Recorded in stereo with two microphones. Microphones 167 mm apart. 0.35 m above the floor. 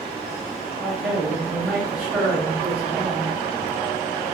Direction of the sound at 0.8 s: 5° right (ahead or behind).